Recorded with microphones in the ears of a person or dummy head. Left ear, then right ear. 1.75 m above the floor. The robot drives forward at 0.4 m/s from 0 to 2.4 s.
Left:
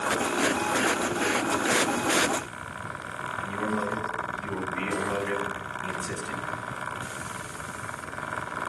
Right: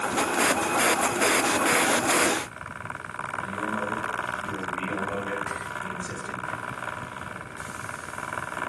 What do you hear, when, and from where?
3.4 s a man speaking: 10° left (ahead or behind), 2.5 m